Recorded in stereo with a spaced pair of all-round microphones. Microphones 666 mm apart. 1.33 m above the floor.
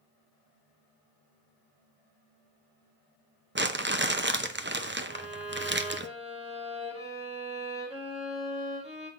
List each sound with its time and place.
3.5 s crumpling: 20° right (ahead or behind), 0.6 m
5.1 s a violin: 10° right (ahead or behind), 2.5 m